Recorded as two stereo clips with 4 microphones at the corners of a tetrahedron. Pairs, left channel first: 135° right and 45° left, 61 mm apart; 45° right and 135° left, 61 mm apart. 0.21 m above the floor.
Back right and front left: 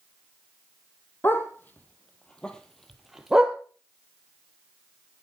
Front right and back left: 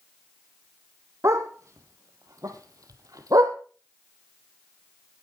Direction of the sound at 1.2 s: 170° left.